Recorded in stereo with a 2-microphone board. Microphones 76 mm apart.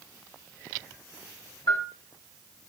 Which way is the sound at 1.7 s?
75° left (ahead or behind).